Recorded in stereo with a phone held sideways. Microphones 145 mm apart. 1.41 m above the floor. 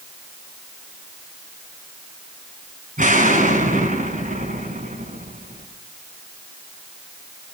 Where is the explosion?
70° right (ahead or behind), 7 m.